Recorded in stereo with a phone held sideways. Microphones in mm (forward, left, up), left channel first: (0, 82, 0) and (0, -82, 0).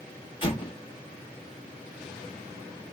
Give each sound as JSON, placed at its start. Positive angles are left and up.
{"t": 0.4, "sound": "an explosion", "side_deg": 30, "distance_m": 1.1}